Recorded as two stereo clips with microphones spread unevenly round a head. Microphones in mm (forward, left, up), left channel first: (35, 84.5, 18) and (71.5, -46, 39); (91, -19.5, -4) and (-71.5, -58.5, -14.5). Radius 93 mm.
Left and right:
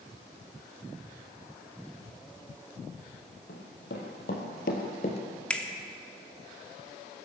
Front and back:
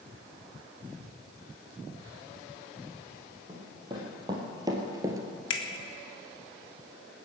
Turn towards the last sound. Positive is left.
turn(degrees=25)